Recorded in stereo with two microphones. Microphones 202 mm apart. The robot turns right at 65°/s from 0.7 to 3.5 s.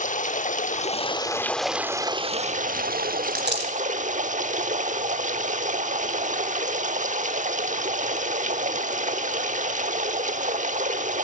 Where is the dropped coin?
40° right (ahead or behind), 3 m; by 3.7 s 60° right (ahead or behind), 3 m.